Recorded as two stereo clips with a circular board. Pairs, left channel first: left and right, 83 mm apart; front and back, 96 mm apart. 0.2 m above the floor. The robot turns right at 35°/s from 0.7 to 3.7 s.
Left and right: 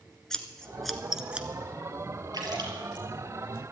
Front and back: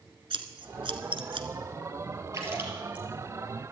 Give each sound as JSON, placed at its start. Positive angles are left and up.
{"t": 0.3, "sound": "scissors", "azimuth_deg": 175, "distance_m": 1.2}
{"t": 2.3, "sound": "a splash", "azimuth_deg": -125, "distance_m": 3.5}